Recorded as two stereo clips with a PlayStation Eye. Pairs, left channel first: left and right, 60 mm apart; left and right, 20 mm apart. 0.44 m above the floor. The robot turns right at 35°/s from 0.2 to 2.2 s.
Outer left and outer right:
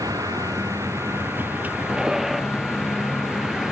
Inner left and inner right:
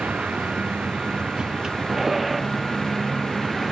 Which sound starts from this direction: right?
A vehicle, at 0.0 s.